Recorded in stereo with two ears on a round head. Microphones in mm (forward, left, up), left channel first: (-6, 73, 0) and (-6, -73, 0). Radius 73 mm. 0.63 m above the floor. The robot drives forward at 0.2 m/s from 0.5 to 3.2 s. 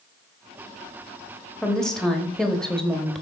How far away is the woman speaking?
About 1.0 m.